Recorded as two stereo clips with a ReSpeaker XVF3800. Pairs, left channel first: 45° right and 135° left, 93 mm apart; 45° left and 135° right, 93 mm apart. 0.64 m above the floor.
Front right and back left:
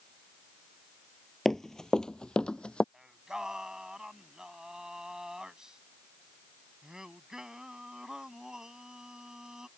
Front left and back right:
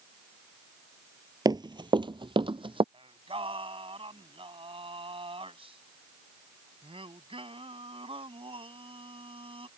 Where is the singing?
140° right.